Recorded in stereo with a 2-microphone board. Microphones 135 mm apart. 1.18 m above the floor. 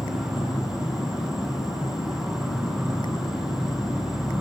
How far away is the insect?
About 0.8 m.